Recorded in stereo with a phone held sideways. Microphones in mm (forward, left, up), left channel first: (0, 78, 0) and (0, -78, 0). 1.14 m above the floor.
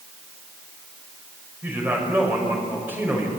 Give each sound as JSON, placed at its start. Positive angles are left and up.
{"t": 1.6, "sound": "a man speaking", "side_deg": -15, "distance_m": 6.5}